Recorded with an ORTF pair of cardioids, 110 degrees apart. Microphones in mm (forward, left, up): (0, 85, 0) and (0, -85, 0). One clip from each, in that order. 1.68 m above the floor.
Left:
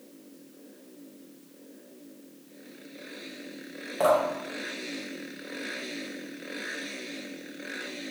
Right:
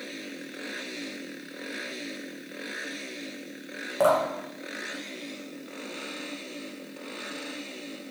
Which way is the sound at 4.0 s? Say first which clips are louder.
Right 1 dB; 15° right.